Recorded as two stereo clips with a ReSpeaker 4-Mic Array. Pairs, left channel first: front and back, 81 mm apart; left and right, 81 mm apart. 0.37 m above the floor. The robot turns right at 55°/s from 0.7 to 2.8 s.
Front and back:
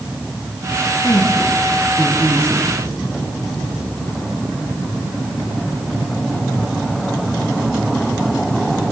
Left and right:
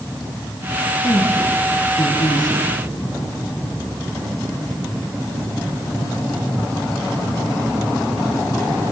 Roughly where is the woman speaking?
Ahead left.